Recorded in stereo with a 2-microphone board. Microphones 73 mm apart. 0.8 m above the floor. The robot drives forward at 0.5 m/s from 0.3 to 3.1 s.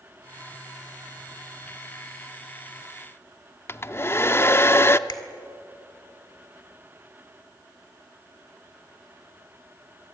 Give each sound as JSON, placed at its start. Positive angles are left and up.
{"t": 3.7, "sound": "a hair dryer", "side_deg": 35, "distance_m": 0.6}
{"t": 5.1, "sound": "a finger snap", "side_deg": 70, "distance_m": 2.0}